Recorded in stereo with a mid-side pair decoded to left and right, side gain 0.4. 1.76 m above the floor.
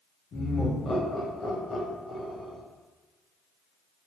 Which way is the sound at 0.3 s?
70° left.